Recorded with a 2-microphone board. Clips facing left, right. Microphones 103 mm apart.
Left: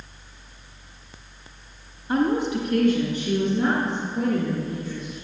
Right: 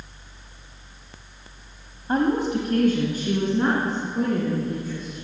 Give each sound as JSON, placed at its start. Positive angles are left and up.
{"t": 2.1, "sound": "a woman speaking", "side_deg": -40, "distance_m": 1.3}